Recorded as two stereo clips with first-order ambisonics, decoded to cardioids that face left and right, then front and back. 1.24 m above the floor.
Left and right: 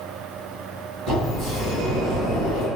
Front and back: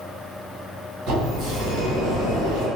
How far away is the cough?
I don't hear a cough.